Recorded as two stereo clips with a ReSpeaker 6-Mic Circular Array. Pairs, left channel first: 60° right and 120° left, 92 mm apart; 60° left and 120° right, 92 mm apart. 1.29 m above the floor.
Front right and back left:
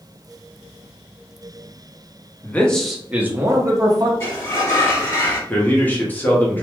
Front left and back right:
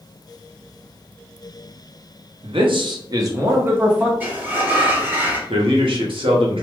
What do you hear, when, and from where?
2.4 s a man speaking: 130° right, 0.6 m; by 4.1 s 165° left, 0.9 m
4.2 s a sliding door: 70° right, 1.0 m
5.5 s a man speaking: 130° right, 0.8 m